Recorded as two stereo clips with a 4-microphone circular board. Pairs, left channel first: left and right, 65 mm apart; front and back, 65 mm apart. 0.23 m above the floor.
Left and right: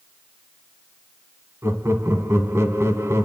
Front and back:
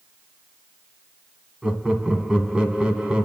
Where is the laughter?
110° right, 1.9 m.